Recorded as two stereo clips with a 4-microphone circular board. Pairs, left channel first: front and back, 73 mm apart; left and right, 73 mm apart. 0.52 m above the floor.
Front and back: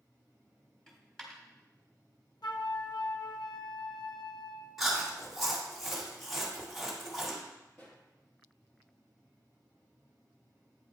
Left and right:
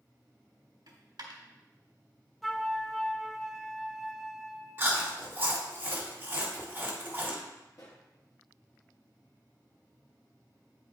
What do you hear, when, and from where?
0.9 s a dropped coin: 80° right, 1.3 m
2.4 s a flute: straight ahead, 0.5 m
4.8 s chewing: 95° right, 1.3 m
7.7 s a pop: 55° left, 2.5 m